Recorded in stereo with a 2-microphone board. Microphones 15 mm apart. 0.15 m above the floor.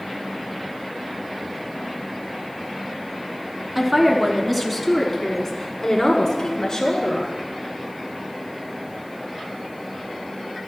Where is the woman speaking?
15° right (ahead or behind), 1.2 m; by 7.4 s 40° left (ahead or behind), 1.7 m.